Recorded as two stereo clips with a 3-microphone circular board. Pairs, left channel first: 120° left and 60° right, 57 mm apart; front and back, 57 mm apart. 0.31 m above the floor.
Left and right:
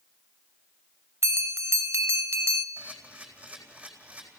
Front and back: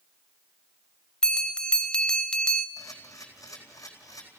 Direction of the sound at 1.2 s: 70° right.